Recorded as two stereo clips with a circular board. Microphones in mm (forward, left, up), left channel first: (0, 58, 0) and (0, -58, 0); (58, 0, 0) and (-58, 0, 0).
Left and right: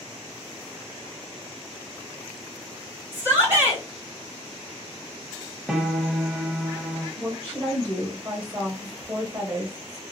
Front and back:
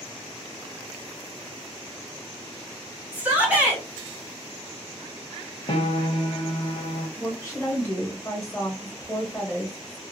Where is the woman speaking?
45° right, 1.0 m.